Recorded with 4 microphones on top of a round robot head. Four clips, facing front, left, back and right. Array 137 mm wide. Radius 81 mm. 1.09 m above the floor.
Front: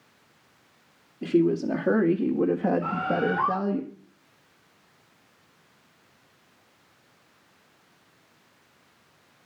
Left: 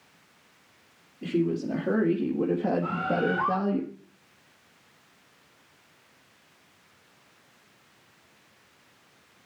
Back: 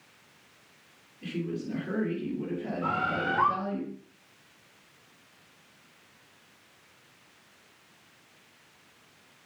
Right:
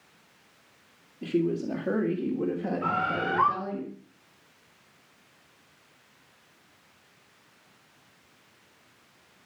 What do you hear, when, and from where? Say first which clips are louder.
1.2 s a woman speaking: even, front 12 dB; 10° right, 2 m; by 3.8 s 45° left, 1.8 m
2.8 s a bird: left 1 dB, front 4 dB; 110° right, 6.5 m